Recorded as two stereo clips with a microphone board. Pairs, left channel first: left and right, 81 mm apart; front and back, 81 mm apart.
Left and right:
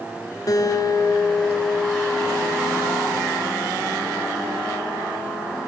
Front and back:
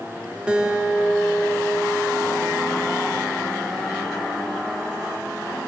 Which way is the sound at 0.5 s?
105° left.